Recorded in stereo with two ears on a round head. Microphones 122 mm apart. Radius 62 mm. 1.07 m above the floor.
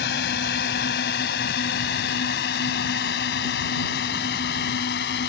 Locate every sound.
0.0 s a drone: 75° left (ahead or behind); by 5.3 s 80° left